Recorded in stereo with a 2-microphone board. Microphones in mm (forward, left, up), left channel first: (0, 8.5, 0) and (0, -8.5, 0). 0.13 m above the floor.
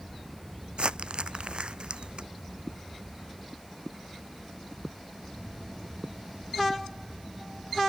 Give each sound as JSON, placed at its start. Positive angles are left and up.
{"t": 0.8, "sound": "crumpling", "side_deg": -60}